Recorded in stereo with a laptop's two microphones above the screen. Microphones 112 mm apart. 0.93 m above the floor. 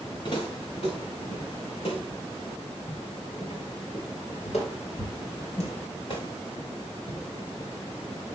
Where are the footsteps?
50° left (ahead or behind), 5.5 m; by 7.7 s 40° left (ahead or behind), 4.5 m.